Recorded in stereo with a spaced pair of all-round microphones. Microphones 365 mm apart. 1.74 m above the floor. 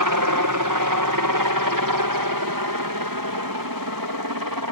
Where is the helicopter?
60° right (ahead or behind); by 4.7 s 70° right (ahead or behind).